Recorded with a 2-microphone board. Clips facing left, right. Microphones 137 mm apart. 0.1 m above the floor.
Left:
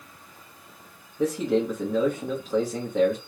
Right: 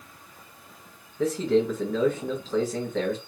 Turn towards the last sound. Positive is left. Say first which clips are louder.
# right 1 dB
turn(degrees=15)  # may be behind; listen again after turning